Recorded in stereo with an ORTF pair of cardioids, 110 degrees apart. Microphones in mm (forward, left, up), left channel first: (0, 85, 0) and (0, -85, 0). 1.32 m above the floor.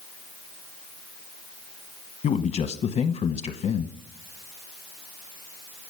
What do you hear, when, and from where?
2.2 s a man speaking: 40° left, 0.9 m